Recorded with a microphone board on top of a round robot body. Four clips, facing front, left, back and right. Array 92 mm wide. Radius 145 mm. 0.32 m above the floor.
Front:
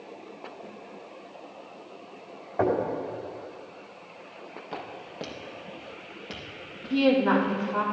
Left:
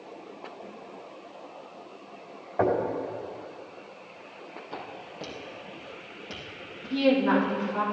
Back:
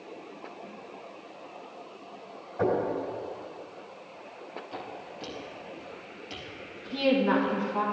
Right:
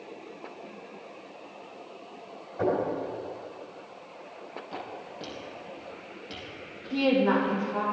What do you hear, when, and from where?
2.6 s knocking: 45° left, 3.5 m
4.7 s footsteps: straight ahead, 4.5 m; by 7.9 s 20° left, 7 m
6.9 s a woman speaking: 10° right, 5 m